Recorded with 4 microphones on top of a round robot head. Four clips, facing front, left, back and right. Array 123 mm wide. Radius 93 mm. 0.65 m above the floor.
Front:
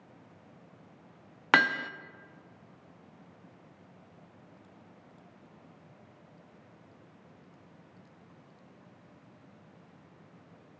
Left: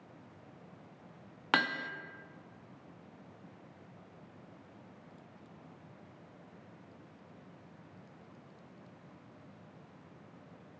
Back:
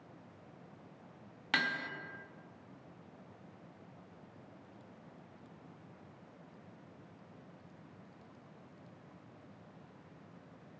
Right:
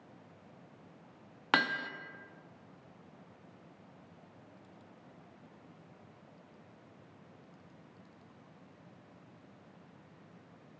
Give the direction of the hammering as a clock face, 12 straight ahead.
12 o'clock.